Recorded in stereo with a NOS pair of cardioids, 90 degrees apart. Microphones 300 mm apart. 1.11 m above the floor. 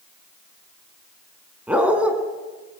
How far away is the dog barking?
About 4 m.